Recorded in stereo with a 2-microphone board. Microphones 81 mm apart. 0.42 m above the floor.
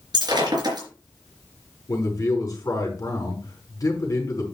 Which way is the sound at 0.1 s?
55° right (ahead or behind).